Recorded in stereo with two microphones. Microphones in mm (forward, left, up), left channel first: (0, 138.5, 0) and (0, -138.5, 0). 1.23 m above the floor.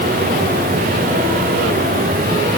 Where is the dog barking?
No dog barking in this recording.